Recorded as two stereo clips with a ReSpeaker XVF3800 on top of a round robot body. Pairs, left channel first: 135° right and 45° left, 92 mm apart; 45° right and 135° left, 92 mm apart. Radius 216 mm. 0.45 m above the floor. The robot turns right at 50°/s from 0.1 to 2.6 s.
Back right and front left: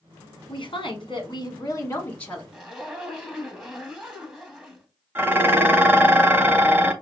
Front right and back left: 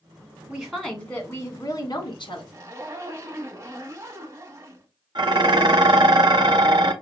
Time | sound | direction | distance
0.5 | a woman speaking | 145° right | 1.8 m
2.5 | a zipper | 115° left | 1.4 m
5.2 | dishes clattering | 110° left | 1.0 m